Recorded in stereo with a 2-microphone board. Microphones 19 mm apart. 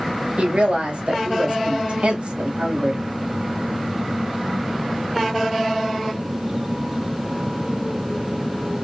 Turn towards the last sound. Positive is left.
turn(degrees=-85)